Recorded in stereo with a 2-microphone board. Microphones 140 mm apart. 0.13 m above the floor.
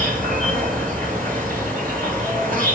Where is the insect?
80° right, 5 m.